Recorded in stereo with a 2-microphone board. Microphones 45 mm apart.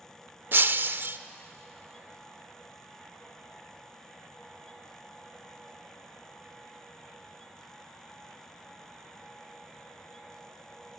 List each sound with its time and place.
0.5 s breaking glass: 55° right (ahead or behind), 0.5 m